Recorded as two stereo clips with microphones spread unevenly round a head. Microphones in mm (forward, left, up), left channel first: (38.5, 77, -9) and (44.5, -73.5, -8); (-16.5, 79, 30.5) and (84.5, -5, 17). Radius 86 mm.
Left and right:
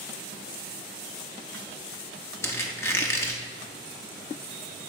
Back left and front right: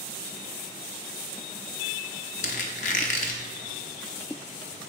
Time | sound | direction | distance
2.4 | a squeak | 165° left | 0.6 m